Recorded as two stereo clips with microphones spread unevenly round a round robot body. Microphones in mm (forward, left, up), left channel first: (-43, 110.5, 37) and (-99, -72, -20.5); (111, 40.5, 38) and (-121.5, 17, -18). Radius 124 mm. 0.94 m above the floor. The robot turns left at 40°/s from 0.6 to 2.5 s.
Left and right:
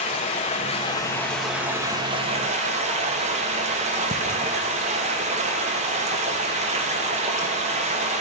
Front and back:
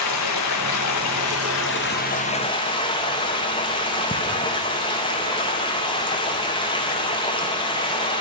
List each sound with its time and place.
0.0 s running water: 5° left, 0.9 m; by 8.2 s 70° right, 0.9 m